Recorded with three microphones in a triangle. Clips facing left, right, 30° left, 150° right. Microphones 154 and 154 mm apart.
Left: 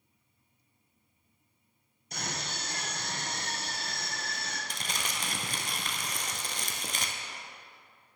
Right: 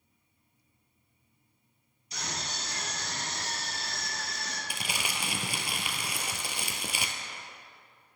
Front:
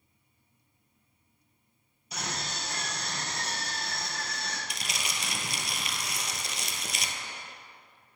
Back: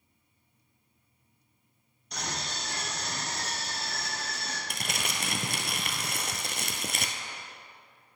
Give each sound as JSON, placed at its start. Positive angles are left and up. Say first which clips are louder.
{"t": 2.1, "sound": "a scream", "louder": "left 1 dB, even", "azimuth_deg": 115, "distance_m": 2.5}
{"t": 4.7, "sound": "crumpling", "louder": "right 3 dB, back 3 dB", "azimuth_deg": -170, "distance_m": 1.0}